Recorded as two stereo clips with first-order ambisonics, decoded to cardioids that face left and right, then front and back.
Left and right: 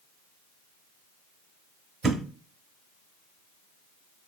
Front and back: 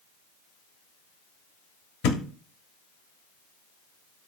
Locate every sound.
2.0 s a thud: 20° right, 0.6 m